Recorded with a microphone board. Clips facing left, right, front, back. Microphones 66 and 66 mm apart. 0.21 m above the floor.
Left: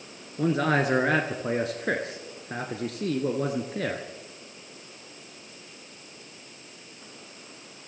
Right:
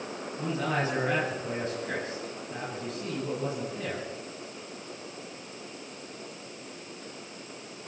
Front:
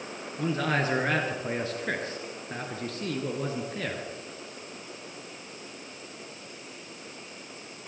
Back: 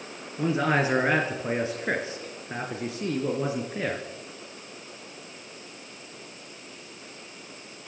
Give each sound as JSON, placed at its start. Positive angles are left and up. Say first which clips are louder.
{"t": 0.4, "sound": "a man speaking", "louder": "left 6 dB, back 4 dB", "azimuth_deg": 105, "distance_m": 2.5}